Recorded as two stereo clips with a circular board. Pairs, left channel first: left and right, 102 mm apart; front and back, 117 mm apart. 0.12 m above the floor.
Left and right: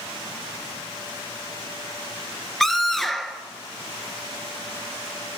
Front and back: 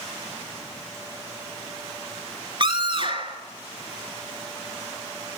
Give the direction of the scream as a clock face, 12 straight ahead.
6 o'clock.